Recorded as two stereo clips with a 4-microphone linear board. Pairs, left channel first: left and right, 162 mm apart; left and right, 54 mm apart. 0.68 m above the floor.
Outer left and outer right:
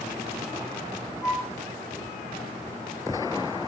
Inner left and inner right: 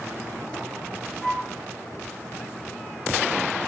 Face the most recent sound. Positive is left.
turn(degrees=0)  # may be behind; listen again after turning